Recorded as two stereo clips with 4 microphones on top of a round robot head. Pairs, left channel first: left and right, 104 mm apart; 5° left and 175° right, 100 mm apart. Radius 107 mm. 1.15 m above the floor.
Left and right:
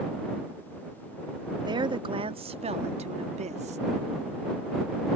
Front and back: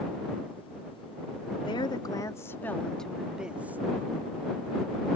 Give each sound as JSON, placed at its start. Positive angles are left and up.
{"t": 1.6, "sound": "a woman speaking", "azimuth_deg": -45}